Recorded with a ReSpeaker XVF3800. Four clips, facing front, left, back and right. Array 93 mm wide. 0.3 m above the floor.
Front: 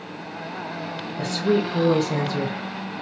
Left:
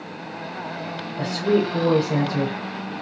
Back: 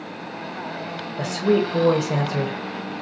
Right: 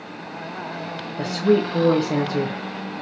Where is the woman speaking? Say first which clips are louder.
Right 2 dB, back 2 dB; 165° right, 1.0 m.